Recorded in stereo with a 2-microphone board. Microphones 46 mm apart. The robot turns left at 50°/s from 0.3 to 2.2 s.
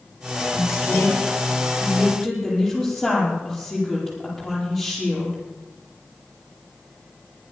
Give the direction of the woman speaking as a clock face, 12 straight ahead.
9 o'clock.